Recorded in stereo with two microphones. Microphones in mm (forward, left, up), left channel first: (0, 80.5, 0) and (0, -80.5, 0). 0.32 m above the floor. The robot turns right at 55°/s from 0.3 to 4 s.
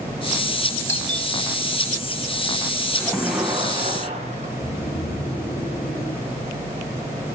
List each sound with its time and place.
0.9 s a doorbell: 15° left (ahead or behind), 3 m; by 1.3 s centre (ahead or behind), 3 m
2.9 s a splash: 165° left, 6 m; by 4.5 s 140° right, 6 m
4.6 s snoring: 60° left (ahead or behind), 6 m